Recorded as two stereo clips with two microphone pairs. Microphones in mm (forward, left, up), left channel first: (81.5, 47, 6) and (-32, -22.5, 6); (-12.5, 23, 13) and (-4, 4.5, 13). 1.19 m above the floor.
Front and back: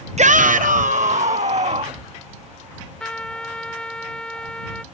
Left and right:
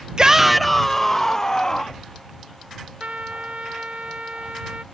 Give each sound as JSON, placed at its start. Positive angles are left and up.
{"t": 0.2, "sound": "a shout", "azimuth_deg": -115}
{"t": 3.0, "sound": "a trumpet", "azimuth_deg": -50}